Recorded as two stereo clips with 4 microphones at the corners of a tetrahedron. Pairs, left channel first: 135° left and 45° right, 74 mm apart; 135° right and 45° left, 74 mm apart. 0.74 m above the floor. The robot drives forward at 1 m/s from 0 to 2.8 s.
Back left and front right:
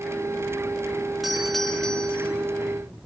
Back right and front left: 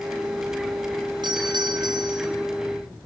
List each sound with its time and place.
1.2 s a doorbell: 40° left, 3 m; by 2.3 s 60° left, 2.5 m